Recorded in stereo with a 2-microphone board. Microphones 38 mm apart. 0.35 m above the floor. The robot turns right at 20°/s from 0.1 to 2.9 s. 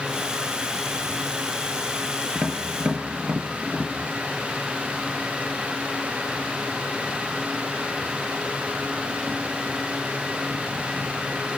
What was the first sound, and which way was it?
Tapping, 30° right (ahead or behind).